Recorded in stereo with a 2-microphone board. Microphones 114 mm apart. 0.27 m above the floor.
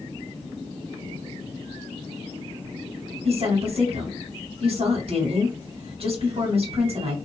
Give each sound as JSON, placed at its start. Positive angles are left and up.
{"t": 3.2, "sound": "a woman speaking", "side_deg": -55, "distance_m": 1.9}